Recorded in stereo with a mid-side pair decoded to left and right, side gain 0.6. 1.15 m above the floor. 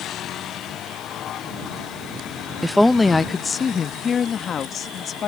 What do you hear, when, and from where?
2.6 s a woman speaking: 5° right; by 5.3 s 45° left